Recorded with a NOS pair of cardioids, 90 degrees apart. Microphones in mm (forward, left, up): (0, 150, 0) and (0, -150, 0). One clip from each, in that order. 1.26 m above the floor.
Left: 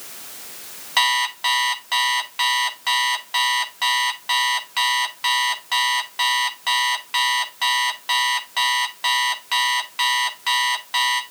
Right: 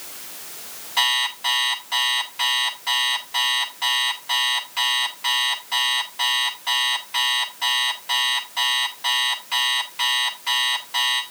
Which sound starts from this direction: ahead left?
An alarm clock, at 1.0 s.